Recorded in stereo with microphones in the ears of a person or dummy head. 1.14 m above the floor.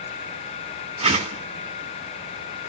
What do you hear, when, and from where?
1.0 s a whoosh: 30° right (ahead or behind), 2 m